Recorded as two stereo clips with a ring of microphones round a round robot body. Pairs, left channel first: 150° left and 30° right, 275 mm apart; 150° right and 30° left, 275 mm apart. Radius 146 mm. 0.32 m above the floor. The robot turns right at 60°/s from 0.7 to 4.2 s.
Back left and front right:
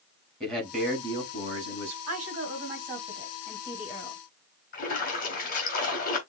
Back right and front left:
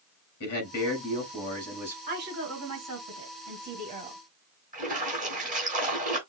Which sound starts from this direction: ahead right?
A woman speaking, at 2.1 s.